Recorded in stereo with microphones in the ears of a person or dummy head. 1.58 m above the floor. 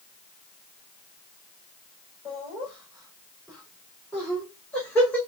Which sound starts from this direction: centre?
Laughter, at 2.2 s.